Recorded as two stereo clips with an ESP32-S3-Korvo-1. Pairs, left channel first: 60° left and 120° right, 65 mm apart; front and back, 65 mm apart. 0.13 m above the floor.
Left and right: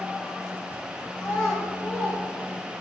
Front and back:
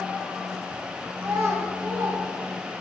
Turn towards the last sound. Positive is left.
turn(degrees=140)